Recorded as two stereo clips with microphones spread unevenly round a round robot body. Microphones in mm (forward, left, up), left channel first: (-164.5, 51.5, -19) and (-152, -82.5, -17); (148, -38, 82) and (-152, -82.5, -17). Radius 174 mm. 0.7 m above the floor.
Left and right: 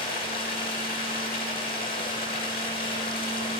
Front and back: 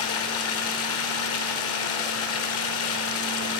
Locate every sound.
0.0 s running water: 60° left, 1.8 m